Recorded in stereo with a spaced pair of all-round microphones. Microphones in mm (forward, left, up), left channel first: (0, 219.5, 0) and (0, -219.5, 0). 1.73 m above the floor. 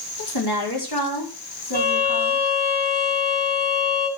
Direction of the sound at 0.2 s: 60° left (ahead or behind).